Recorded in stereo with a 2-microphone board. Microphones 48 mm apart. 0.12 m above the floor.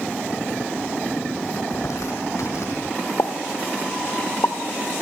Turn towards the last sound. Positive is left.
turn(degrees=65)  # may be behind; listen again after turning